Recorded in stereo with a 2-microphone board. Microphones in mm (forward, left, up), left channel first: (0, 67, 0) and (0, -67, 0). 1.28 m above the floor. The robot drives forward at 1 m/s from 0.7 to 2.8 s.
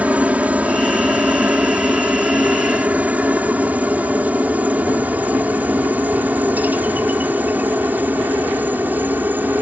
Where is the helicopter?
10° right (ahead or behind); by 9.6 s 15° right (ahead or behind).